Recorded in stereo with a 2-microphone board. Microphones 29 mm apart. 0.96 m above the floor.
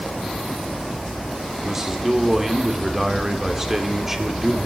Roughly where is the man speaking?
Centre.